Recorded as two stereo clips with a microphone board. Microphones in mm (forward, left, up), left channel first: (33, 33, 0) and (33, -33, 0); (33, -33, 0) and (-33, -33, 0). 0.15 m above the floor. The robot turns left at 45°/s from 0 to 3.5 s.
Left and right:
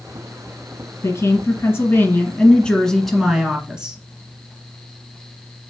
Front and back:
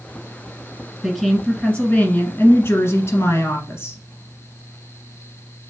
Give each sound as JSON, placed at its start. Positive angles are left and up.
{"t": 1.0, "sound": "a woman speaking", "azimuth_deg": 95, "distance_m": 1.4}